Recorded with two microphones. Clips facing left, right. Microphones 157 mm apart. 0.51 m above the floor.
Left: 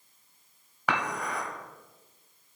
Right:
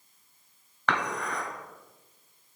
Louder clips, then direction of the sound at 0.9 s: Even; 10° left (ahead or behind).